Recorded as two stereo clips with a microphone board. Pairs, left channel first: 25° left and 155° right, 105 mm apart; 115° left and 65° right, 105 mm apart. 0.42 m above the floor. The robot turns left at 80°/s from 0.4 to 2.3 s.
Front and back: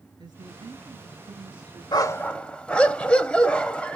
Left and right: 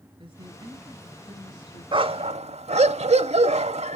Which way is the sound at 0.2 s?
105° right.